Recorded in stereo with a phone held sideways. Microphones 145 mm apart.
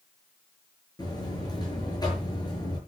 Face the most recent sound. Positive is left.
turn(degrees=30)  # may be behind; listen again after turning